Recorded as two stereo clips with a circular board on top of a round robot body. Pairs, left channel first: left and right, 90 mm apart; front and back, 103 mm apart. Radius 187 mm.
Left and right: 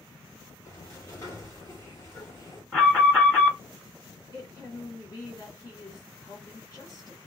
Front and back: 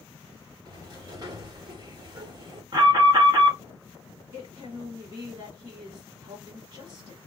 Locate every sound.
0.7 s a sliding door: 140° left, 2 m
2.7 s an alarm: 160° left, 2.5 m
4.3 s a woman speaking: 125° left, 2 m